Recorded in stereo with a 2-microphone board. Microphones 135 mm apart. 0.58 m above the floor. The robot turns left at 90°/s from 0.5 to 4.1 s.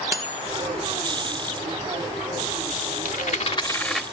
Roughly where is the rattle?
Left.